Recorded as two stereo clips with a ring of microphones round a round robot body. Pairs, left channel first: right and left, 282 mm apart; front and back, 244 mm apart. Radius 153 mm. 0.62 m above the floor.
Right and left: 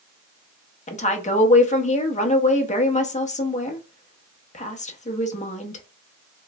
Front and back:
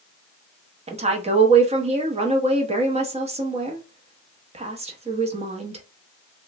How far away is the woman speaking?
About 0.9 m.